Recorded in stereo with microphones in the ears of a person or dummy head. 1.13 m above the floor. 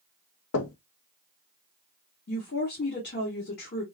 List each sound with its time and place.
0.5 s knocking: 80° left, 0.6 m
2.3 s a woman speaking: 50° left (ahead or behind), 1.3 m